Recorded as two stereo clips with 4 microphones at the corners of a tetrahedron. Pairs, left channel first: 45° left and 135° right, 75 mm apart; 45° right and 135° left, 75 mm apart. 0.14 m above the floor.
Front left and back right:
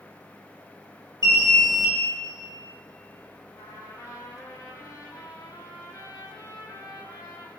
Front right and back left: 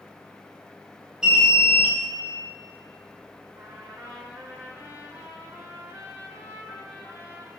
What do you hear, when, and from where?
1.2 s an alarm: 55° left, 3 m
3.5 s a trumpet: 80° left, 2.5 m